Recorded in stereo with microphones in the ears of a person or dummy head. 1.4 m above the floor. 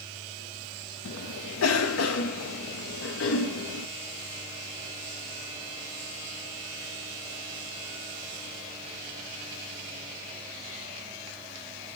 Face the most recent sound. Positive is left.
turn(degrees=85)